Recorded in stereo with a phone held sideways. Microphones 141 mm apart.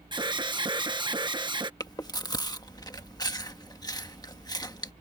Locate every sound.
0.1 s an alarm: 35° right (ahead or behind)
1.8 s chewing: 30° left (ahead or behind)